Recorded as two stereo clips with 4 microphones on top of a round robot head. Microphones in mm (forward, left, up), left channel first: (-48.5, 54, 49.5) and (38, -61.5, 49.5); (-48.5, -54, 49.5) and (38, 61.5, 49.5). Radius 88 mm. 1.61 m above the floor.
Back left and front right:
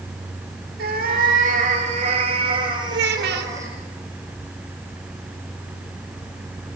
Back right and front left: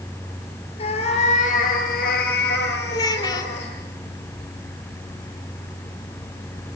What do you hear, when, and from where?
0.8 s a cat meowing: 75° right, 4 m; by 3.7 s 125° right, 4.5 m
2.9 s a child speaking: 60° right, 2 m